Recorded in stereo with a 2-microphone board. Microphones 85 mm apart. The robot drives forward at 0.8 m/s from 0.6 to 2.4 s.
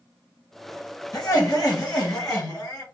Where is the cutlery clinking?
No cutlery clinking in this recording.